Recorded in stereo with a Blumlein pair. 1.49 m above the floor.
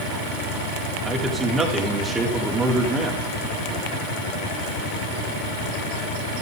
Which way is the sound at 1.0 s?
15° right.